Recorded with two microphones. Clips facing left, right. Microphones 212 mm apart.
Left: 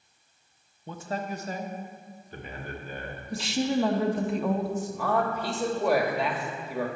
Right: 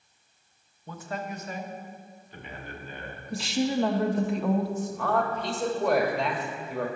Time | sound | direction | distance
0.9 | a man speaking | 25° left (ahead or behind) | 0.7 m
3.3 | a woman speaking | centre (ahead or behind) | 0.7 m
4.8 | a man speaking | 5° left (ahead or behind) | 1.2 m